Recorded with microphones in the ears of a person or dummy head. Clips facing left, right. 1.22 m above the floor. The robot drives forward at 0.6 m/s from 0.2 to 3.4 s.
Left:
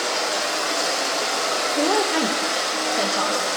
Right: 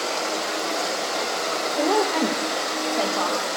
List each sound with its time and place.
0.0 s running water: 80° left, 5.5 m; by 3.6 s 70° left (ahead or behind), 6 m
1.8 s a woman speaking: 5° left (ahead or behind), 1.1 m